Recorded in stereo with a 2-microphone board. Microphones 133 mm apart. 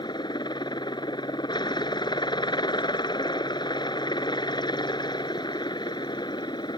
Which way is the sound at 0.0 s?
35° left (ahead or behind).